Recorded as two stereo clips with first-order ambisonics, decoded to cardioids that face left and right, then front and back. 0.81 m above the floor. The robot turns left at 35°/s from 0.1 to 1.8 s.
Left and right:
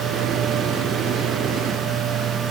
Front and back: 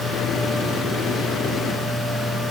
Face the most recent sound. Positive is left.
No sound to turn to.